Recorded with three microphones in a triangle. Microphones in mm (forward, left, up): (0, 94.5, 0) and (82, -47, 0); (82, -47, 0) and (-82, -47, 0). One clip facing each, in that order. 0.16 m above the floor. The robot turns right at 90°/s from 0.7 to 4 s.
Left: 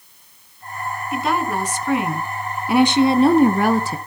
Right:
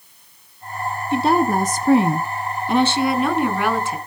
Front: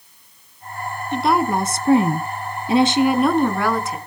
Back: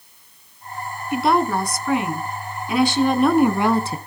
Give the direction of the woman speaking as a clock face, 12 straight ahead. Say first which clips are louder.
Right 5 dB, even; 3 o'clock.